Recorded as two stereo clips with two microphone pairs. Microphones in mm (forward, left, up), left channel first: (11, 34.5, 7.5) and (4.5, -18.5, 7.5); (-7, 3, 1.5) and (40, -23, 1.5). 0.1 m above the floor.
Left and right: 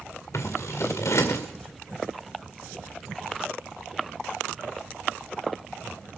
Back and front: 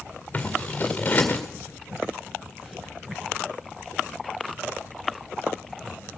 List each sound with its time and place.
0.3 s scissors: 90° left, 1.9 m